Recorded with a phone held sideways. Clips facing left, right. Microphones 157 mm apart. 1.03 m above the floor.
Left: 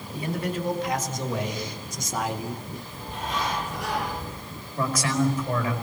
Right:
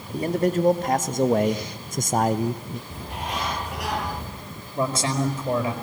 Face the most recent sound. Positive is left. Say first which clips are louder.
# right 1 dB
turn(degrees=-30)  # may be behind; listen again after turning